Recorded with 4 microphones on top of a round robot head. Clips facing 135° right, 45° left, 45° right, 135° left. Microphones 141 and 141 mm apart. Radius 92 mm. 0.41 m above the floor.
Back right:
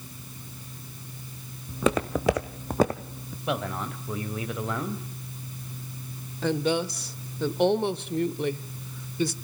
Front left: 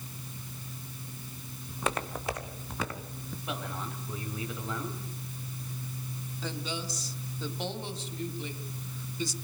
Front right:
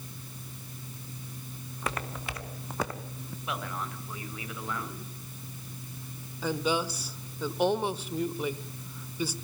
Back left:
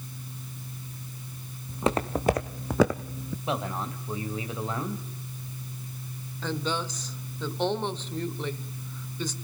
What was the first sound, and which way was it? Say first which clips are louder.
Footsteps: back right 9 dB, back left 10 dB; 155° right.